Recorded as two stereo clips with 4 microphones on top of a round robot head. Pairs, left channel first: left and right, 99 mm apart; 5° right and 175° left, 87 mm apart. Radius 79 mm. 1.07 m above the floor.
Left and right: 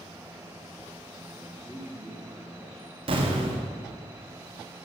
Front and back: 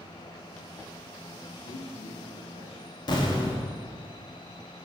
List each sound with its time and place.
1.4 s a man speaking: 5° left, 2.5 m
3.1 s an explosion: 50° right, 2 m